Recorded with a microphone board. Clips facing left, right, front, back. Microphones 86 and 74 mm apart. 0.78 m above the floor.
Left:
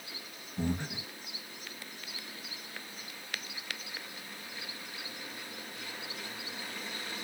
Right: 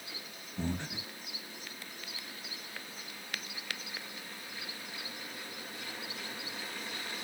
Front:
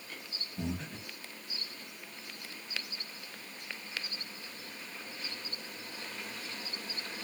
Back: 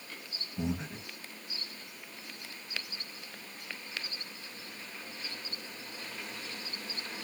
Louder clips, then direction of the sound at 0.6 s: Left 3 dB, back 3 dB; 145° left.